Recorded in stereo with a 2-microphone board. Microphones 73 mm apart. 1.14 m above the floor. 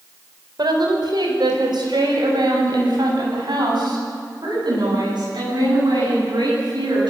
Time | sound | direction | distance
0.6 | a woman speaking | 70° right (ahead or behind) | 5.5 m